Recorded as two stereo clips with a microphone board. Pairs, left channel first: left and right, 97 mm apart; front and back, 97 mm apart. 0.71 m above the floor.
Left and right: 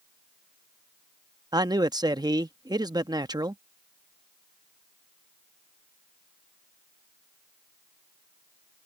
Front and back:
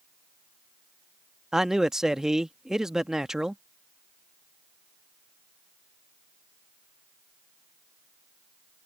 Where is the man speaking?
95° right.